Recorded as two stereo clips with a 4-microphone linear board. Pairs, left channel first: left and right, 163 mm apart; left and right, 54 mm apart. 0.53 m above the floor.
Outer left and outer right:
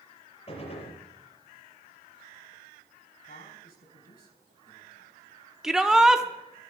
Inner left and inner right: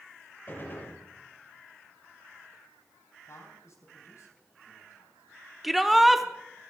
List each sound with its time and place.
0.5 s a gunshot: 40° left (ahead or behind), 5.5 m
3.3 s a man speaking: 70° left (ahead or behind), 4 m
5.6 s a shout: 5° right (ahead or behind), 0.6 m